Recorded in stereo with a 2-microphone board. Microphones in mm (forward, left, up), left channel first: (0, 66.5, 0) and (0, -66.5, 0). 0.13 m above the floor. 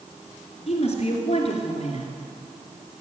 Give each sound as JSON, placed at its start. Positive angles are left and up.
{"t": 0.7, "sound": "a woman speaking", "side_deg": 50, "distance_m": 2.5}